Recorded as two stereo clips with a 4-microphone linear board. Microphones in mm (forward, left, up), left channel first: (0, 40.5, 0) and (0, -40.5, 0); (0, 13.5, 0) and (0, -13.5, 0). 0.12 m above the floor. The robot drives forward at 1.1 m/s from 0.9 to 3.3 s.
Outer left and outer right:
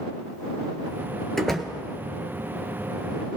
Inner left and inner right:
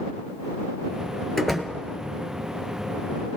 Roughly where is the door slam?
Centre.